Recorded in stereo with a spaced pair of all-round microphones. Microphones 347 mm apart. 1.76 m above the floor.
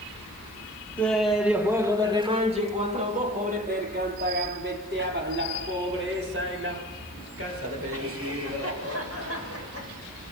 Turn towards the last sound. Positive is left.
turn(degrees=-45)  # may be behind; listen again after turning